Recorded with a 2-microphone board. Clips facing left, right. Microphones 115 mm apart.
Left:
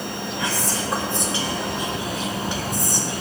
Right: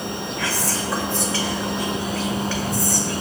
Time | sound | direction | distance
0.4 | whispering | 20° left (ahead or behind) | 0.6 m